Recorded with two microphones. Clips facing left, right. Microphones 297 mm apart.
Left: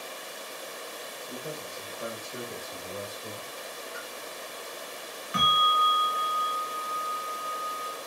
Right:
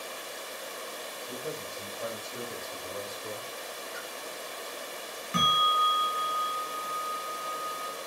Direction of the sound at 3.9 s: 5° left (ahead or behind).